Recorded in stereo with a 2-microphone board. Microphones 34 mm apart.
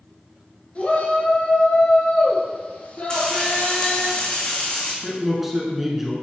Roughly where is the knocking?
No knocking in this recording.